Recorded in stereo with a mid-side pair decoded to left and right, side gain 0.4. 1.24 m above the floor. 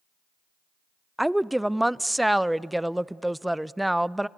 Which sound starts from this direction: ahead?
A woman speaking, at 1.2 s.